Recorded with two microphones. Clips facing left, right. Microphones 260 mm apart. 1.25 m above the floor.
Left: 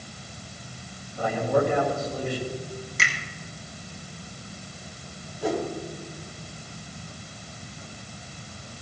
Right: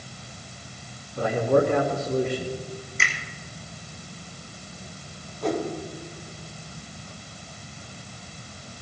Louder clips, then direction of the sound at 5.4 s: Right 1 dB; 5° left (ahead or behind).